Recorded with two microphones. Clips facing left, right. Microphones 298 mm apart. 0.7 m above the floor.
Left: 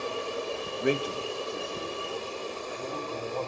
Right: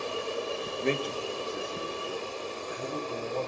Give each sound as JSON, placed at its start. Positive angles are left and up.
{"t": 0.8, "sound": "a man speaking", "side_deg": 15, "distance_m": 1.0}